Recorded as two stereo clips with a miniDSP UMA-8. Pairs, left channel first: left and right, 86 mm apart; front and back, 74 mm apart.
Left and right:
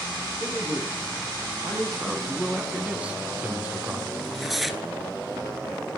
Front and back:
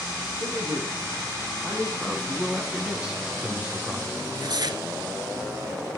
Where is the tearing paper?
Straight behind, 0.9 m.